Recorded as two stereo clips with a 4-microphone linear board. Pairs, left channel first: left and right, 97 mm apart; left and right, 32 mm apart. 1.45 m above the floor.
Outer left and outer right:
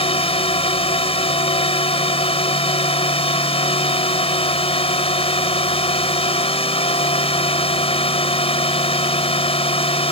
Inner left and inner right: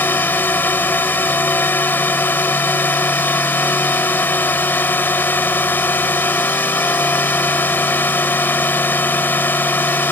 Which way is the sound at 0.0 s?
80° left.